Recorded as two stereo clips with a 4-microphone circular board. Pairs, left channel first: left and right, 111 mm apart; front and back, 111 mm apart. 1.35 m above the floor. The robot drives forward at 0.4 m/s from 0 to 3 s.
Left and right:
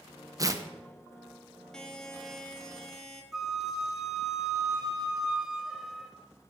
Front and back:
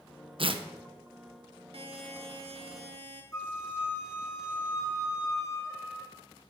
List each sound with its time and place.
0.4 s tearing paper: 145° right, 0.8 m; by 0.6 s 150° right, 0.9 m
1.7 s a buzzer: 170° left, 1.1 m; by 3.2 s 175° left, 1.5 m
3.3 s a flute: 15° right, 1.1 m